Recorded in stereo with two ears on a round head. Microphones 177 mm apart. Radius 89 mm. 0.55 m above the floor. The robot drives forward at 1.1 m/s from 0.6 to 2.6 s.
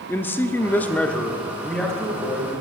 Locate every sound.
0.1 s a man speaking: 10° left (ahead or behind), 0.6 m; by 2.5 s 5° left (ahead or behind), 2.5 m